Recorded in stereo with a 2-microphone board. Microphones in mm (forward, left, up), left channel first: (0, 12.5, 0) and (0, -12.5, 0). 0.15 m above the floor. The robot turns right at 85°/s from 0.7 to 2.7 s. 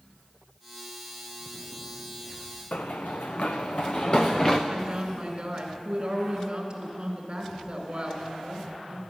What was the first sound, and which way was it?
Running footsteps, 80° left.